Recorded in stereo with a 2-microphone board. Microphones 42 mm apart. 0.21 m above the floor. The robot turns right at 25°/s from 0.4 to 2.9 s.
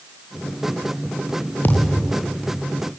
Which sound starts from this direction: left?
A thud, at 1.6 s.